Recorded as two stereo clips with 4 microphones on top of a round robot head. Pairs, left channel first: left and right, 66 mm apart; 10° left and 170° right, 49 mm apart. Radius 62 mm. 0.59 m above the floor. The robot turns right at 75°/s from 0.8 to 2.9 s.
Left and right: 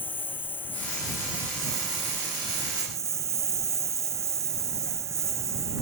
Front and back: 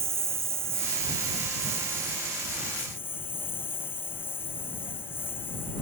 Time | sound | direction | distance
0.0 | a lawn mower | 155° left | ?